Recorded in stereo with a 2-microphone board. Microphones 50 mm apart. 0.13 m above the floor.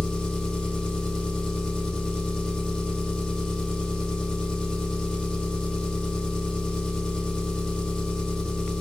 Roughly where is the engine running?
Centre.